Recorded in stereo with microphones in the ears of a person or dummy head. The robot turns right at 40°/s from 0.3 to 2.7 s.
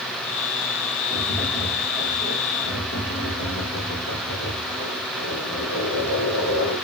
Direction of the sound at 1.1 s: Straight ahead.